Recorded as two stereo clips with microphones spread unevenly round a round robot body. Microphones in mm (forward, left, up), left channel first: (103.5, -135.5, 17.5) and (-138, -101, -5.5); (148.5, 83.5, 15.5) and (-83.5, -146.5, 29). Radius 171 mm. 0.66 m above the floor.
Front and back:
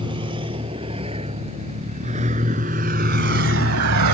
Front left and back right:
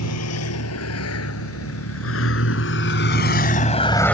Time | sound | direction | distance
0.0 | a vehicle | 95° left | ?